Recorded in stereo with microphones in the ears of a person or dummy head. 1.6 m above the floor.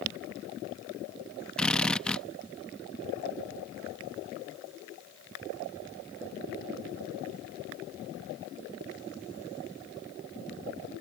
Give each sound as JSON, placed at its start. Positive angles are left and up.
{"t": 1.6, "sound": "a drill", "side_deg": 5}